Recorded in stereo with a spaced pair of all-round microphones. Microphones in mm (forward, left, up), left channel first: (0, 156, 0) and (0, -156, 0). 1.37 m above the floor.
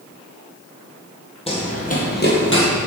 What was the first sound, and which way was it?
Running footsteps, 20° left (ahead or behind).